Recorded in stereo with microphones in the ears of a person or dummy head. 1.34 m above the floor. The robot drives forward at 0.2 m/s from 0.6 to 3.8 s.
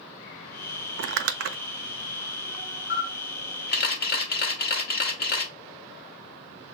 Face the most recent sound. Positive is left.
turn(degrees=50)  # may be behind; listen again after turning